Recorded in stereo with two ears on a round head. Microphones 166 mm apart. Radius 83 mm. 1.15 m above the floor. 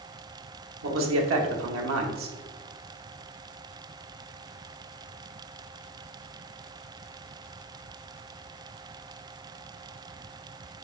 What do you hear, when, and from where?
0.8 s a man speaking: 80° right, 1.5 m